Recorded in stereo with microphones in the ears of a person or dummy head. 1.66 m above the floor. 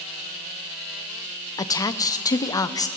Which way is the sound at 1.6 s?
20° left (ahead or behind).